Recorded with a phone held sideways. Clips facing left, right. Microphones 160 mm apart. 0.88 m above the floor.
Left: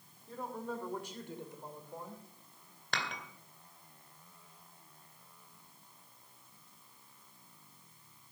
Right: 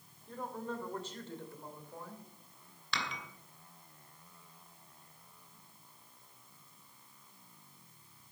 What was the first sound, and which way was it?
A woman speaking, centre (ahead or behind).